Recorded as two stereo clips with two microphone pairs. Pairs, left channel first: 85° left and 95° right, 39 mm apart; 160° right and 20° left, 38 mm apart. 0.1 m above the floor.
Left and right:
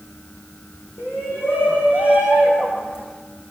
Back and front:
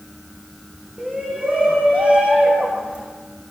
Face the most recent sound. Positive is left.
turn(degrees=85)